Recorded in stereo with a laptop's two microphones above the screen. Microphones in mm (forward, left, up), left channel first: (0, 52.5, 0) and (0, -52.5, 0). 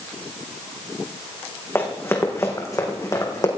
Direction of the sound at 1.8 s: 20° left (ahead or behind).